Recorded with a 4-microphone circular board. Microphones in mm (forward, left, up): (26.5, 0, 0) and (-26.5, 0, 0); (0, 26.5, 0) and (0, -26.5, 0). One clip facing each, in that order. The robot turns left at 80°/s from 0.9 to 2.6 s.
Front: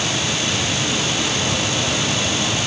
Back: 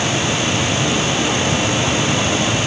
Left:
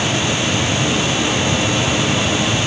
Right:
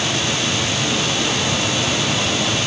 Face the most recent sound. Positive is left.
No sound to turn to.